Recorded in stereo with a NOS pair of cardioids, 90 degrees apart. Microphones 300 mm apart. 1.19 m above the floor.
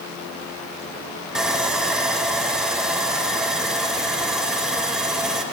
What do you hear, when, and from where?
1.4 s sawing: straight ahead, 0.9 m